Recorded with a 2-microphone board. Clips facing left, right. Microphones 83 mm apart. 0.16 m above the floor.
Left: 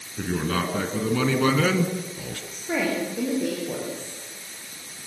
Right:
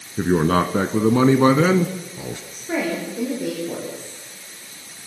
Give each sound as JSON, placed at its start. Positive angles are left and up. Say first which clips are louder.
{"t": 0.2, "sound": "a man speaking", "louder": "right 8 dB", "side_deg": -45, "distance_m": 1.4}
{"t": 2.5, "sound": "a woman speaking", "louder": "right 1 dB", "side_deg": 0, "distance_m": 8.5}